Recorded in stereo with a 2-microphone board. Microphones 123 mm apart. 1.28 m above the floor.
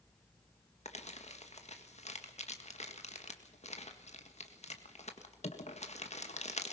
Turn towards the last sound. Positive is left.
turn(degrees=60)  # may be behind; listen again after turning